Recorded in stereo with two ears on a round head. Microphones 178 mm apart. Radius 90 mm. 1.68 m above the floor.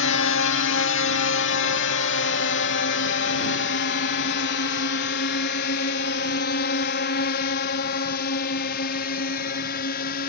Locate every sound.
0.0 s a drone: 70° left (ahead or behind); by 10.3 s 50° left (ahead or behind)